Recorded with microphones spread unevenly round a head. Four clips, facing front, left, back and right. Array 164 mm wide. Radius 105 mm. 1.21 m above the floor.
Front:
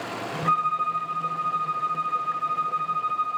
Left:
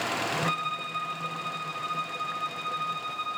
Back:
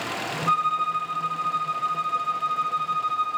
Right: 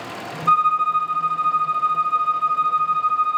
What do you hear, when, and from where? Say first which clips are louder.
0.5 s a violin: right 15 dB, even; 100° right, 1.4 m